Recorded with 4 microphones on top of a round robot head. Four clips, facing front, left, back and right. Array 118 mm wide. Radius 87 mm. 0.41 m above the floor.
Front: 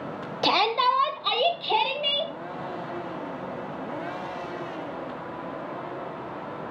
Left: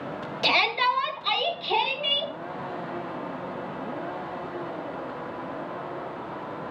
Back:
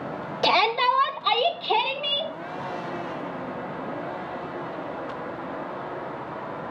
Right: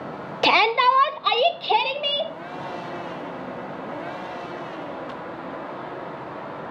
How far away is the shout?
About 1.3 m.